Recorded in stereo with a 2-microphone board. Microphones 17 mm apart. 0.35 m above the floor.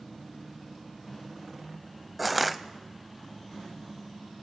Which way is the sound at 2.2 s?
Centre (ahead or behind).